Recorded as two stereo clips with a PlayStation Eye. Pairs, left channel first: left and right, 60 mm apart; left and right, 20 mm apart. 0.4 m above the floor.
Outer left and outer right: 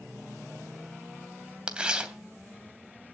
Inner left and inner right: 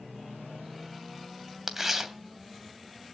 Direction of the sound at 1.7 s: 15° right (ahead or behind).